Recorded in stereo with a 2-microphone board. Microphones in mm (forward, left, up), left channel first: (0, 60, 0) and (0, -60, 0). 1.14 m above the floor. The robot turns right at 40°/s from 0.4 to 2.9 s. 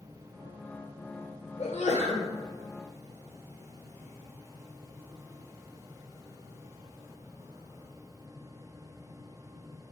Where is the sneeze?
60° left (ahead or behind), 1.0 m; by 2.3 s 85° left, 1.0 m.